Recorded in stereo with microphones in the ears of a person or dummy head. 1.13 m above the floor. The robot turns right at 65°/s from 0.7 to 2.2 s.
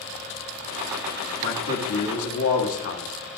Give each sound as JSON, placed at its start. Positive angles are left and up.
{"t": 1.4, "sound": "a man speaking", "azimuth_deg": 45, "distance_m": 2.0}